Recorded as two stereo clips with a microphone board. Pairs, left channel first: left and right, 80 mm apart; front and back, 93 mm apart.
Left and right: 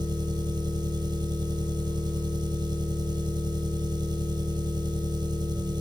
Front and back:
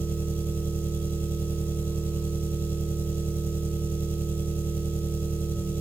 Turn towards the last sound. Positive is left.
turn(degrees=-75)